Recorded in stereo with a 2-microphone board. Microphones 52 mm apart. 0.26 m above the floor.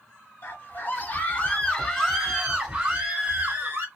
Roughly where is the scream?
Left.